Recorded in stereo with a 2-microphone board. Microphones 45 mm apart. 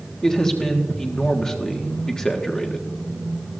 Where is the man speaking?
15° left (ahead or behind), 1.5 m.